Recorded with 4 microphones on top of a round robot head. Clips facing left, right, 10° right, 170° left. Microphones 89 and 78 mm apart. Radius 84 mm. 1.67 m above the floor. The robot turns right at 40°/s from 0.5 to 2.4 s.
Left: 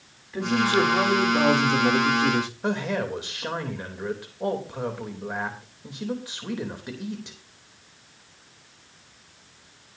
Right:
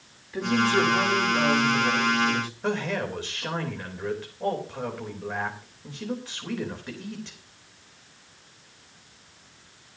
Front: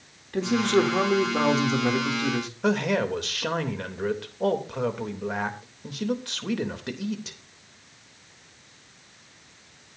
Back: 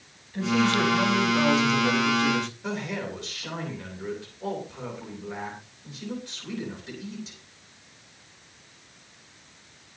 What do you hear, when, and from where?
0.3 s a man speaking: straight ahead, 3 m; by 2.5 s 75° left, 3 m
2.6 s a man speaking: 15° left, 3 m